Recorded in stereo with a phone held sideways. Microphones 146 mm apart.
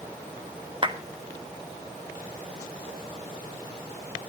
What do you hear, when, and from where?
0.8 s a clap: 35° right (ahead or behind), 1.5 m